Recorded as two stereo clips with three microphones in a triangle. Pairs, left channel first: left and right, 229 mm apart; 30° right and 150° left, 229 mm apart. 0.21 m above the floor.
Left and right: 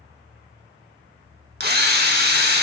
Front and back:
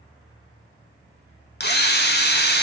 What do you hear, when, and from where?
1.6 s a drill: 60° right, 0.7 m